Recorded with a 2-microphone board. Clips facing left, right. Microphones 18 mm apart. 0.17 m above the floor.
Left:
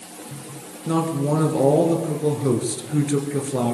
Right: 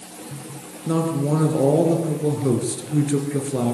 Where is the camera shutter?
I don't hear a camera shutter.